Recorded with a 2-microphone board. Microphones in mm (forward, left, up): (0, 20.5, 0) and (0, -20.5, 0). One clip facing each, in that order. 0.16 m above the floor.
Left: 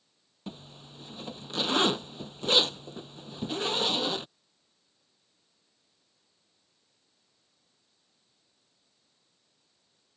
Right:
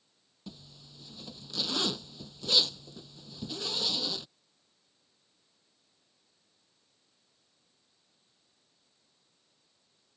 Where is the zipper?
40° left (ahead or behind).